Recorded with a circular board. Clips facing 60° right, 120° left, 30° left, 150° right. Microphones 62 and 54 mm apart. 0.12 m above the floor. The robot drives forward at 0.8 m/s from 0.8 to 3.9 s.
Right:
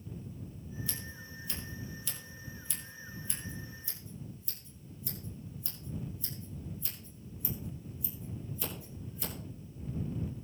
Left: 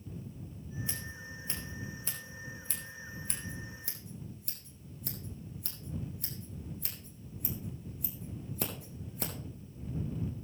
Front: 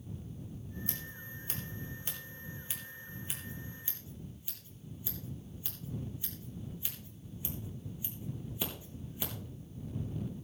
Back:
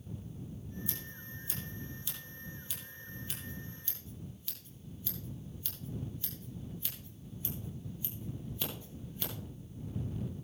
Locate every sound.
0.9 s scissors: 55° left, 3.5 m; by 9.3 s 105° left, 3 m